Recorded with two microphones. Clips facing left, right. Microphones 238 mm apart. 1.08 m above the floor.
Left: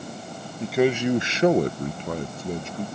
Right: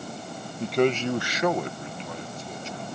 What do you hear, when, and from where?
0.6 s a man speaking: centre (ahead or behind); by 2.9 s 55° left (ahead or behind)